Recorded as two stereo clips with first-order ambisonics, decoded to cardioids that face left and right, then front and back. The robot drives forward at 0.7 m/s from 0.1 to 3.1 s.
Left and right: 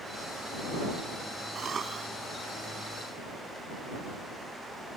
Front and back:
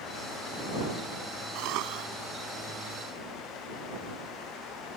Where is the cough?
155° right.